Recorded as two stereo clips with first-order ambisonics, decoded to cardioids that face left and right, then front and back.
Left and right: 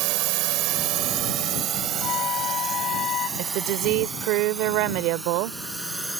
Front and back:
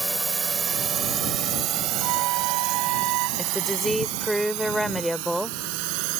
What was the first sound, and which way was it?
A drone, 95° right.